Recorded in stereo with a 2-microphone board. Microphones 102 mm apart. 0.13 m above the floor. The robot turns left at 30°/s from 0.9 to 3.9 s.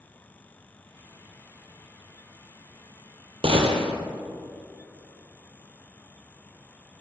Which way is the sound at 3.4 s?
65° right (ahead or behind).